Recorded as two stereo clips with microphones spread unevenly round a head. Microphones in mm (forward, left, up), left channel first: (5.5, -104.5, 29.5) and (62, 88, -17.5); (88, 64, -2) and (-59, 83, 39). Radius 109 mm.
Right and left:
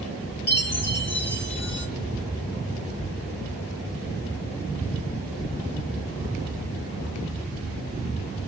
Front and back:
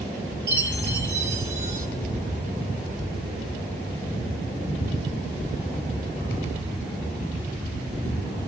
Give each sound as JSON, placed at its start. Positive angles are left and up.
{"t": 0.5, "sound": "a chime", "azimuth_deg": -130, "distance_m": 1.5}